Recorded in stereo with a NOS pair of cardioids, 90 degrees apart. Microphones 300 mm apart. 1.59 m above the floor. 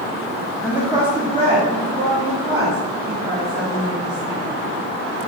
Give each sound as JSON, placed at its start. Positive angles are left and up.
{"t": 0.6, "sound": "a woman speaking", "azimuth_deg": 0, "distance_m": 0.6}